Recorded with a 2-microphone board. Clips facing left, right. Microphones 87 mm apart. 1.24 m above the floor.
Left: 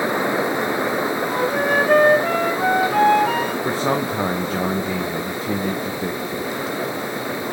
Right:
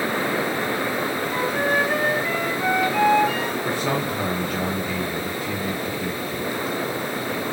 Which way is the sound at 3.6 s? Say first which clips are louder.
Left 3 dB; 25° left (ahead or behind).